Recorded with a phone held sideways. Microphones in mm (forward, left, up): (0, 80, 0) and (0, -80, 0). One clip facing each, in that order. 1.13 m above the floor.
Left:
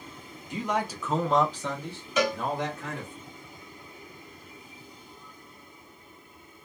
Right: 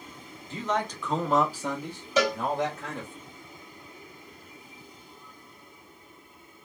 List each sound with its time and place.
0.5 s a man speaking: 15° left (ahead or behind), 0.7 m; by 3.2 s 25° right (ahead or behind), 1.4 m
2.2 s a cowbell: 35° right (ahead or behind), 1.7 m